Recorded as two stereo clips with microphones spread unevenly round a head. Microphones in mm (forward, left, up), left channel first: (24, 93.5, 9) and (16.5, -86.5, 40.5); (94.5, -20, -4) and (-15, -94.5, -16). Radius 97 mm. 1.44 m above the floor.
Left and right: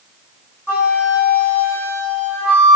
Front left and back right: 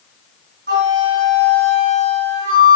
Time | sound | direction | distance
0.7 | a flute | 175° right | 1.7 m